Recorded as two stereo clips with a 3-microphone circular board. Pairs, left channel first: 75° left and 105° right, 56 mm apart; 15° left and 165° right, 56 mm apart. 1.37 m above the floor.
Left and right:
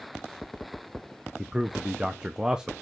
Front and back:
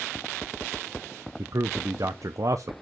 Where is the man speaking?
Straight behind, 0.7 m.